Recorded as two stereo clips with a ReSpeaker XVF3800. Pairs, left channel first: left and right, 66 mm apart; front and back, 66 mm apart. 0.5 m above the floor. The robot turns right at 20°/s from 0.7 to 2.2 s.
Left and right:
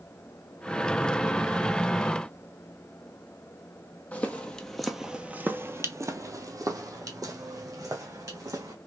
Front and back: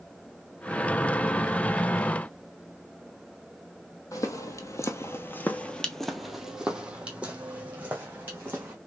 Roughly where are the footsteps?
Ahead left.